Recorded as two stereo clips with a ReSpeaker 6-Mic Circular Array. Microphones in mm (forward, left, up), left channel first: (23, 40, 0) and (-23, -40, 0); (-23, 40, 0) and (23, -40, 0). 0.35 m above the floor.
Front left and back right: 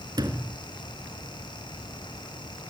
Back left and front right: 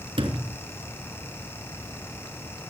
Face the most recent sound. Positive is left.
turn(degrees=-75)